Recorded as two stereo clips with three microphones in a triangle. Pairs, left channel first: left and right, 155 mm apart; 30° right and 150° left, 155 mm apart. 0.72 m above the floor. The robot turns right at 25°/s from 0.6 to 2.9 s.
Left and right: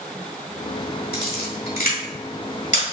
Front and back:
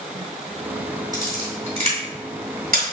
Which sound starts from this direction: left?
A camera shutter, at 1.1 s.